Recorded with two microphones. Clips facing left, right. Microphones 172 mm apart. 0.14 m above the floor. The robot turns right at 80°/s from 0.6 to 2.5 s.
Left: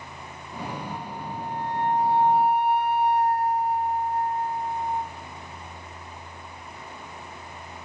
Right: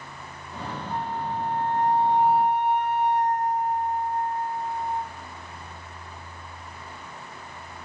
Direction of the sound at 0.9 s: 120° right.